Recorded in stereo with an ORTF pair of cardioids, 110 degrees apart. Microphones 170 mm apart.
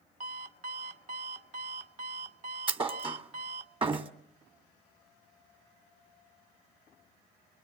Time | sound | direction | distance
0.2 | an alarm clock | 45° right | 1.0 m
2.7 | a thud | 35° right | 1.6 m